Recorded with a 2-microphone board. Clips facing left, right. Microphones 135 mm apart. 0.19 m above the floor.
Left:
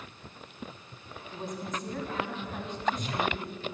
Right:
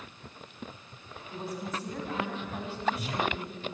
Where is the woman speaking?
5° right (ahead or behind), 1.1 m.